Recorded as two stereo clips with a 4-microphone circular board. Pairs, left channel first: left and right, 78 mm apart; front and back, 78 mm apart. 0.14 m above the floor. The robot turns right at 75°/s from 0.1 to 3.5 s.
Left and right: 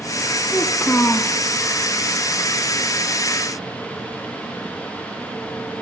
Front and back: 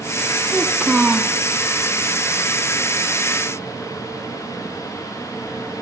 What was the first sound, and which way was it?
A child speaking, 70° left.